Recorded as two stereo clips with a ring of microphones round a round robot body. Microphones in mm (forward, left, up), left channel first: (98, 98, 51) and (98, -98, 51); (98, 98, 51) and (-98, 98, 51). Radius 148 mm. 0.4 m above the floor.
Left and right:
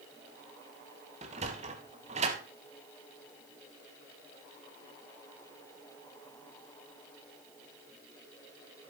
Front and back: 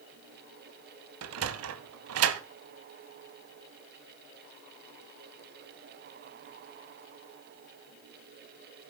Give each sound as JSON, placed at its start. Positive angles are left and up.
{"t": 1.2, "sound": "a sliding door", "azimuth_deg": -160, "distance_m": 0.6}